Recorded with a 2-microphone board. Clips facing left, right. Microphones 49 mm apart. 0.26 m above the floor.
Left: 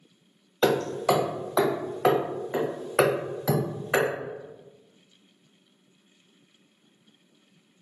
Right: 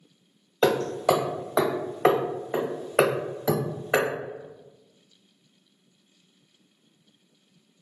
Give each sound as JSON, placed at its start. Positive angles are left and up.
{"t": 0.6, "sound": "hammering", "side_deg": -20, "distance_m": 1.0}